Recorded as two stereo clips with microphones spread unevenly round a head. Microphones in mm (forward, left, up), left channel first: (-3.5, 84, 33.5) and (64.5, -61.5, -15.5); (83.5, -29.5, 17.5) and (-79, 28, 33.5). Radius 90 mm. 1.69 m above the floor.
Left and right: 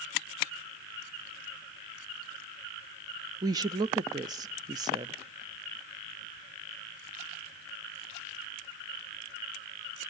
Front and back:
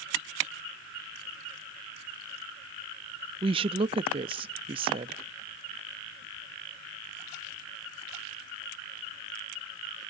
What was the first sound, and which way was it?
A woman speaking, 140° right.